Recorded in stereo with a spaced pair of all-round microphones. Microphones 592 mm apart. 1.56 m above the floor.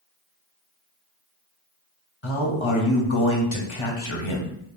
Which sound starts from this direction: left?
A man speaking, at 2.2 s.